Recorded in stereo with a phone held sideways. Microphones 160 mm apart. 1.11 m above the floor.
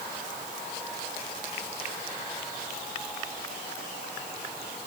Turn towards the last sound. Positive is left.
No sound to turn to.